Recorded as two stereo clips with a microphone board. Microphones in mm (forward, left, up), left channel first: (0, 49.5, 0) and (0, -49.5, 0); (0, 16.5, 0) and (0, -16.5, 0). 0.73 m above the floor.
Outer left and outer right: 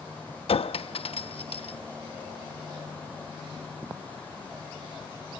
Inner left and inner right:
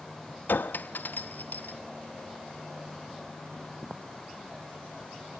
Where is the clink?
75° left (ahead or behind), 0.6 m.